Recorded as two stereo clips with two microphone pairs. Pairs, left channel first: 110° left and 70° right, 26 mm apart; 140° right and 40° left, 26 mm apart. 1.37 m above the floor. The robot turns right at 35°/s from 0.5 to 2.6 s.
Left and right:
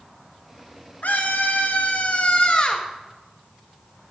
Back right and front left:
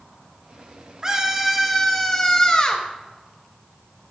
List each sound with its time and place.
1.0 s a scream: 110° left, 1.7 m; by 2.9 s 165° left, 1.7 m